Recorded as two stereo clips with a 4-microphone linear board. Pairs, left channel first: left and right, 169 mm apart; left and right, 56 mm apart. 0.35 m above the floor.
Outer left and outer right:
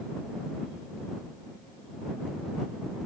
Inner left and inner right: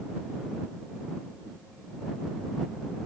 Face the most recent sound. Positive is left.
No sound to turn to.